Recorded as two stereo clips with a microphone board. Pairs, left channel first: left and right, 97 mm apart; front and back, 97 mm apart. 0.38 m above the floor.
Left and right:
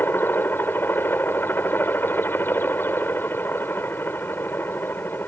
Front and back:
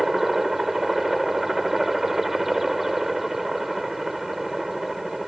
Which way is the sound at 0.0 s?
100° left.